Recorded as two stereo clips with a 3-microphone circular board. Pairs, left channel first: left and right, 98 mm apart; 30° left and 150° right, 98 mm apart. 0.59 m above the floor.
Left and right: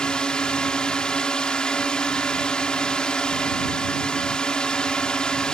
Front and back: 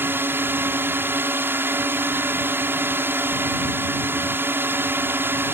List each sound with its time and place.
0.0 s a drone: 165° left